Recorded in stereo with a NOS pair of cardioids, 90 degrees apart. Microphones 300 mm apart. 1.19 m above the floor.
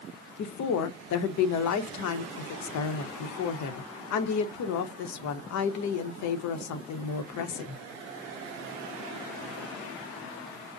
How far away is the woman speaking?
About 0.7 m.